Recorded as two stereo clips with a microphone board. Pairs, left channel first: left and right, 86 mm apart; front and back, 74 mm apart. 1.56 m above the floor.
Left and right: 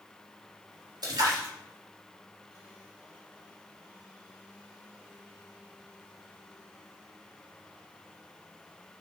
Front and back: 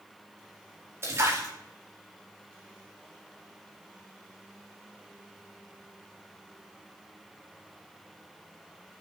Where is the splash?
125° right, 4 m.